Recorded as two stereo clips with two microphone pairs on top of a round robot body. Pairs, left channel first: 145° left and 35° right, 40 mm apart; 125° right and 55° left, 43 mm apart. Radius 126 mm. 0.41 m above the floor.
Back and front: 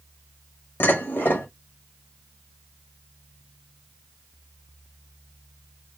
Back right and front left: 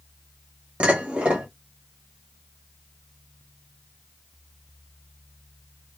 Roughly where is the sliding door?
No sliding door in this recording.